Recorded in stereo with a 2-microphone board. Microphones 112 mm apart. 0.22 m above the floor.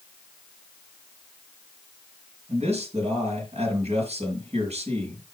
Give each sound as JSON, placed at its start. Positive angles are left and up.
{"t": 2.5, "sound": "a man speaking", "side_deg": -70, "distance_m": 4.5}